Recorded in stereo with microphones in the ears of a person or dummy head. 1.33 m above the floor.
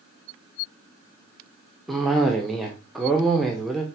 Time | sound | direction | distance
1.9 | a cough | centre (ahead or behind) | 0.8 m